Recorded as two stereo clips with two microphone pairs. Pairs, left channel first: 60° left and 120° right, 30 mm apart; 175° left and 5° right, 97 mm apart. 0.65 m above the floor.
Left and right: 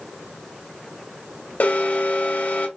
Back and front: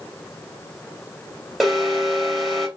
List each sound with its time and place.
1.6 s an alarm: 85° left, 1.8 m